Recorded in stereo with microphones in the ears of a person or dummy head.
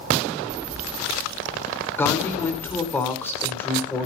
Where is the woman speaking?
15° left (ahead or behind), 3 m.